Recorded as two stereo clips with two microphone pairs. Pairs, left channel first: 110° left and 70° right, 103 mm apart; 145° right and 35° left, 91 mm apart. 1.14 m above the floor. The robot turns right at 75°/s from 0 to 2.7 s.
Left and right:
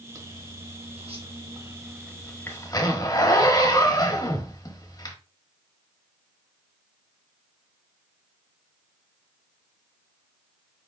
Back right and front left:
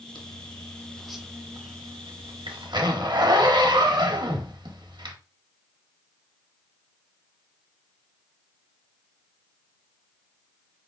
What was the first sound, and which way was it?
A zipper, 130° right.